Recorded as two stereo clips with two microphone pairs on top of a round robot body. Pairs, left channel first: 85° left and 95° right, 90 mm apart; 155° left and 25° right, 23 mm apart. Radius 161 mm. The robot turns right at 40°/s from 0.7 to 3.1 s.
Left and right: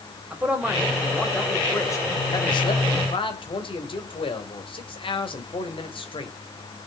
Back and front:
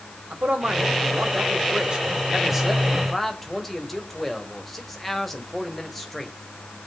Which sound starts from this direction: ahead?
A man speaking, at 0.3 s.